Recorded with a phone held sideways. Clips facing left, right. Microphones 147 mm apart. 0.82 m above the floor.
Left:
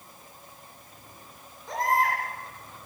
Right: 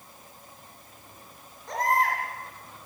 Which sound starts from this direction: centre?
A baby crying, at 1.7 s.